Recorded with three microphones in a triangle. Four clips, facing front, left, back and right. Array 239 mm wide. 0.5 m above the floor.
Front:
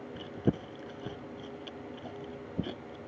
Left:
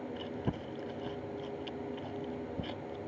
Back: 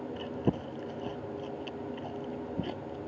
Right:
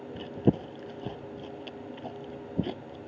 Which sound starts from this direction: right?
Chewing, at 0.1 s.